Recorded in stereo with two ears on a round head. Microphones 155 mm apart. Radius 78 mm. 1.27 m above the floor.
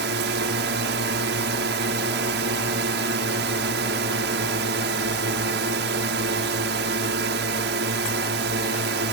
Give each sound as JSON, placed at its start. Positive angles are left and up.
{"t": 0.0, "sound": "a drone", "side_deg": -70}